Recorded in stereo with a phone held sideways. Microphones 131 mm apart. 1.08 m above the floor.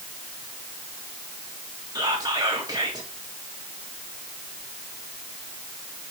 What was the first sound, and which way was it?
Whispering, 30° right (ahead or behind).